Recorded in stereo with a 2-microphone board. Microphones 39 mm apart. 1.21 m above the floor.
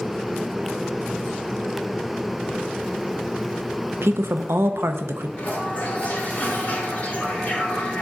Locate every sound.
4.0 s a woman speaking: 85° right, 0.6 m
5.4 s a toilet flushing: 40° left (ahead or behind), 2.5 m